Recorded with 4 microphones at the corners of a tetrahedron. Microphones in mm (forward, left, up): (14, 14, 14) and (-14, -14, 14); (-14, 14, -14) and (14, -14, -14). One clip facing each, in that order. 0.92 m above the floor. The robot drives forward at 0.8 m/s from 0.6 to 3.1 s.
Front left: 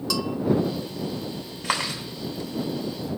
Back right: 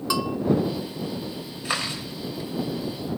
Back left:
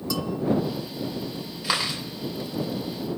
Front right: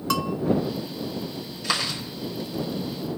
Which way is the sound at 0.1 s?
70° right.